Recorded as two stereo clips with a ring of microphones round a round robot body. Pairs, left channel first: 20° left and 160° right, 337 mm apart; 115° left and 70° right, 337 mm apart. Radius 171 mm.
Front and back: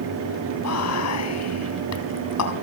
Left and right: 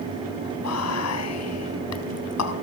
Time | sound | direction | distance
0.6 | whispering | 70° left | 4 m